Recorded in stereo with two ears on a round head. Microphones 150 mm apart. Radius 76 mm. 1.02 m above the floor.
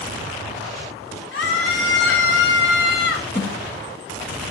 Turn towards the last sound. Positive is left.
turn(degrees=55)  # may be behind; listen again after turning